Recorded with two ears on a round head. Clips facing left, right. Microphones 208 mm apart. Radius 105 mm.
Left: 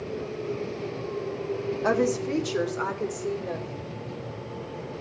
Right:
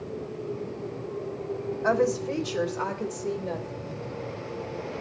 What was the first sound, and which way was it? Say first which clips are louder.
A woman speaking: even; 45° left (ahead or behind).